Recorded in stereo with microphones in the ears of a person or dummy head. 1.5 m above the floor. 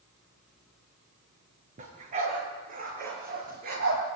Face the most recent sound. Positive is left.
turn(degrees=-55)  # may be behind; listen again after turning